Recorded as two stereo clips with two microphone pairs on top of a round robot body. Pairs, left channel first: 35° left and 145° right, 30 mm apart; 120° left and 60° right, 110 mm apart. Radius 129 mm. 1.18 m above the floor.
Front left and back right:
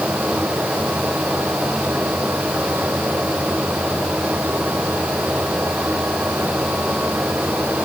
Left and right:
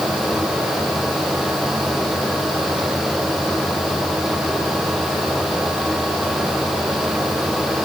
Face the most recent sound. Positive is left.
No sound to turn to.